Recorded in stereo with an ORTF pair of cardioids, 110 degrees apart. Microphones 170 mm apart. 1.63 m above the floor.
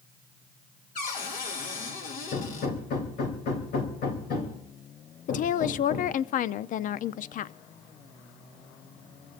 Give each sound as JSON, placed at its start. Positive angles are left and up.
{"t": 0.9, "sound": "a cupboard door", "azimuth_deg": 55, "distance_m": 2.5}
{"t": 2.3, "sound": "hammering", "azimuth_deg": 65, "distance_m": 3.0}
{"t": 5.3, "sound": "a woman speaking", "azimuth_deg": 50, "distance_m": 0.5}